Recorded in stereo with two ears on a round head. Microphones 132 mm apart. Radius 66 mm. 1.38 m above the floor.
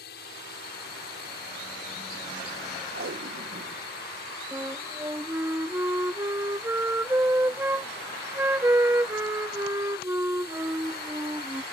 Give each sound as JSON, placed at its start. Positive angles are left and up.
{"t": 0.0, "sound": "a drone", "side_deg": 75}
{"t": 2.9, "sound": "tape being pulled", "side_deg": -80}
{"t": 4.5, "sound": "a flute", "side_deg": -15}